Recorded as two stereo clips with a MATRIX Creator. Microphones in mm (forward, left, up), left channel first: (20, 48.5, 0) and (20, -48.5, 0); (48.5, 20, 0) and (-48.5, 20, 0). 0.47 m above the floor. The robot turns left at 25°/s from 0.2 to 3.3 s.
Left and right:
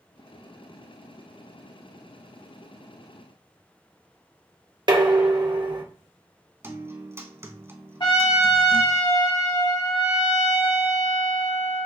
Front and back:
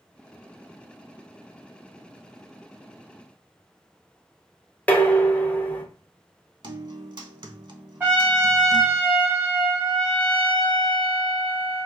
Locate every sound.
4.9 s dishes clattering: 70° right, 0.6 m
6.6 s a guitar: 150° right, 0.5 m
8.0 s a trumpet: 115° left, 2 m